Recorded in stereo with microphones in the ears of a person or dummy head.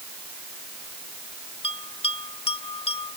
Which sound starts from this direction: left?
A bell, at 1.6 s.